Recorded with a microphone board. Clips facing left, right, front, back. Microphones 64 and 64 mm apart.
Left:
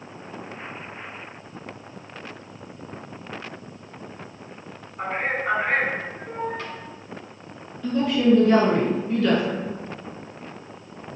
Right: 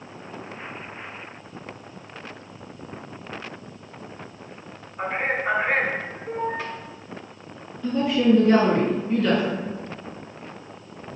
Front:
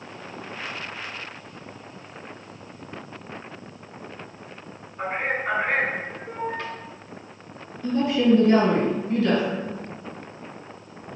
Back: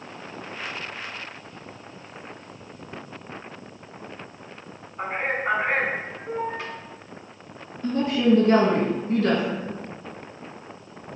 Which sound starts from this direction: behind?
A woman speaking, at 7.8 s.